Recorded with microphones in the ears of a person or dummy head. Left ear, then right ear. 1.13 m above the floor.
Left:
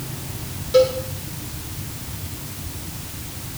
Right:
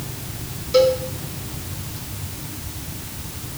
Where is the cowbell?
Centre (ahead or behind), 3.5 m.